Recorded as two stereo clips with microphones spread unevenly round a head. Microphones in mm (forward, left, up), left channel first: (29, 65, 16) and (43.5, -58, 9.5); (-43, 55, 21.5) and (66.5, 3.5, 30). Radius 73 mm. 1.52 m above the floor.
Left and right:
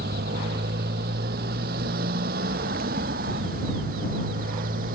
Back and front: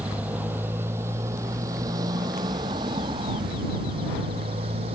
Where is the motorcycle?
105° right; by 5.0 s 75° right.